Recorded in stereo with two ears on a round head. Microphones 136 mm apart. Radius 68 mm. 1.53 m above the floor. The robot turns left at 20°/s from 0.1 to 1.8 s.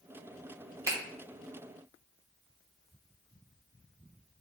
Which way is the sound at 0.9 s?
20° right (ahead or behind).